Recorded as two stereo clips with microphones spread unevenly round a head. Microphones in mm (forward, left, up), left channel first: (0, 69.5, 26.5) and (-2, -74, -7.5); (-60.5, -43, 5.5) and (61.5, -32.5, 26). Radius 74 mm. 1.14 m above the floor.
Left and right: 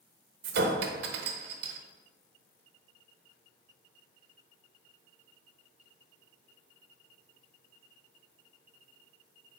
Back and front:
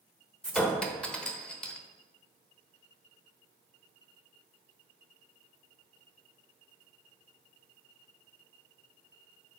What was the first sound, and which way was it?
A clink, 90° right.